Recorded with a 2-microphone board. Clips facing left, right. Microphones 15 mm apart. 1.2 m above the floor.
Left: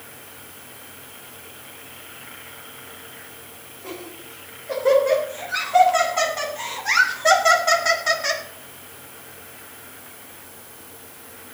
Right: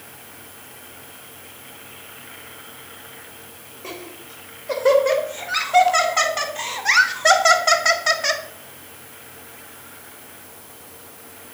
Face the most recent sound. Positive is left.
turn(degrees=-20)  # may be behind; listen again after turning